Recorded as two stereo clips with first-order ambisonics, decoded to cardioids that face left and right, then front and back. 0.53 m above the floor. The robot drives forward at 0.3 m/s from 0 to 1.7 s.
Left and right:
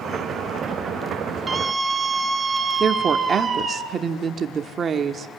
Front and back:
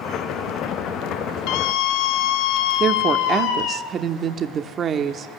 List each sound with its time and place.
1.5 s a scream: 10° right, 3 m
2.8 s a woman speaking: 140° right, 1.2 m